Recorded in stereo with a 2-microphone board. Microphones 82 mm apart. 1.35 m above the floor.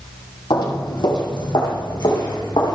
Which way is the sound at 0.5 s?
60° left (ahead or behind).